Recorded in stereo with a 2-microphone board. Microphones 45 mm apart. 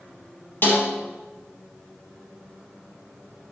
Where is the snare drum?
50° left (ahead or behind), 4.5 m.